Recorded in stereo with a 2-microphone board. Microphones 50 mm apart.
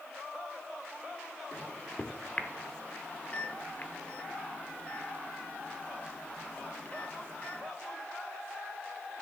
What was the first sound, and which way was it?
A microwave, 35° left (ahead or behind).